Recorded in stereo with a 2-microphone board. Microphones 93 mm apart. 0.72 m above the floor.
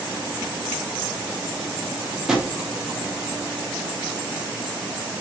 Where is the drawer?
5° right (ahead or behind), 0.6 m.